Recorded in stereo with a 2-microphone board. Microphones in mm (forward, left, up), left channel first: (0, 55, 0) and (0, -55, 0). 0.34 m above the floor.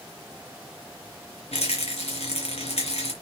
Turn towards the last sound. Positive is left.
turn(degrees=75)  # may be behind; listen again after turning